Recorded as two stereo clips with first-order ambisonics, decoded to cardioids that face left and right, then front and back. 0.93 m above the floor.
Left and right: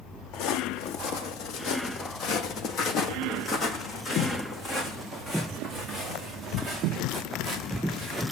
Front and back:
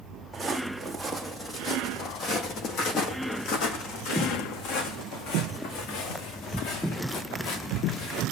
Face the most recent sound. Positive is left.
turn(degrees=-5)